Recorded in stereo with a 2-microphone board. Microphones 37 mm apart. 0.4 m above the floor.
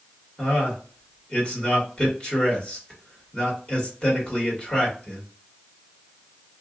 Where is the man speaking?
35° left (ahead or behind), 1.7 m.